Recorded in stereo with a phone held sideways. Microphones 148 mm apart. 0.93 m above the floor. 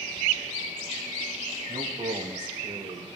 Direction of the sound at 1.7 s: 40° right (ahead or behind).